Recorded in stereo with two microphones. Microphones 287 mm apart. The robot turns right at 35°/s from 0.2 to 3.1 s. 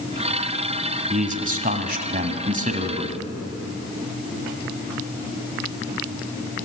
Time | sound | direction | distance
1.1 | a man speaking | 120° right | 1.6 m